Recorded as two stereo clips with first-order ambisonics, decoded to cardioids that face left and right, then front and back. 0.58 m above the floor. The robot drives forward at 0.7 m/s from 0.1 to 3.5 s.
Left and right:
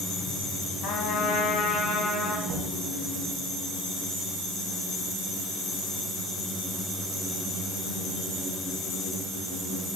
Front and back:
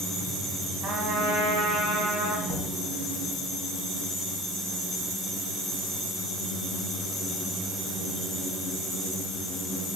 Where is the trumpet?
125° left, 1.7 m; by 2.4 s 145° left, 2.5 m.